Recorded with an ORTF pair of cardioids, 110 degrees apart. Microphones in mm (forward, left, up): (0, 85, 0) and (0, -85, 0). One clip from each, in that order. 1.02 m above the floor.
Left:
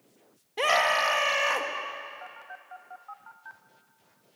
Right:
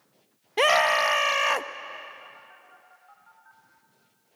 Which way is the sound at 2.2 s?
65° left.